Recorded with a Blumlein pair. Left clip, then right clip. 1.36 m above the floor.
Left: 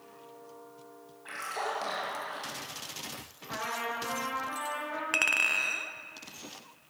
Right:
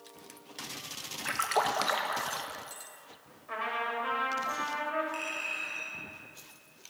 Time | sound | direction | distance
1.2 | a splash | 60° right | 1.6 m
3.5 | a trumpet | 10° right | 4 m
5.1 | a clink | 55° left | 1.0 m